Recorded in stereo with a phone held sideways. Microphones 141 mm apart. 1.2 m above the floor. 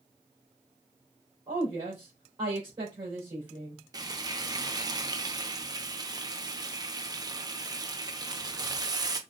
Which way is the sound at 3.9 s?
30° right (ahead or behind).